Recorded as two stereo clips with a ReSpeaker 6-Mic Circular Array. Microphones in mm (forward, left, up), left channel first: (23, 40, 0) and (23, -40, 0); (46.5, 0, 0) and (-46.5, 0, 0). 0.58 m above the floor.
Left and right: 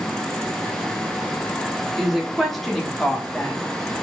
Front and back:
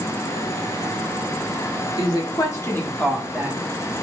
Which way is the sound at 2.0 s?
5° right.